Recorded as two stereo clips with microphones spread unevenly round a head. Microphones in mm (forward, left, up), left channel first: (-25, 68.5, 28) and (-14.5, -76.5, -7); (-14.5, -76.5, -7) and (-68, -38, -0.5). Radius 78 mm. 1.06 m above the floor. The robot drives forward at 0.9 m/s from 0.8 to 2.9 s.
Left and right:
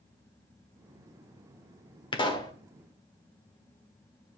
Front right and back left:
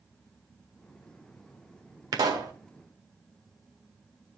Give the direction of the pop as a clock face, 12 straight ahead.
7 o'clock.